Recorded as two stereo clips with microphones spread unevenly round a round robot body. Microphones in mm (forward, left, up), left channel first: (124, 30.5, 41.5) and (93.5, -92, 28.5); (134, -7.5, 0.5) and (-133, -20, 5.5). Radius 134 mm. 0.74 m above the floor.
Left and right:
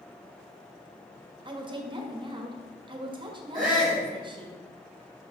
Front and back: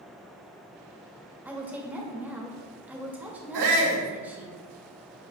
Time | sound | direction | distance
1.4 | a woman speaking | 95° right | 1.4 m
3.5 | a shout | 165° left | 3 m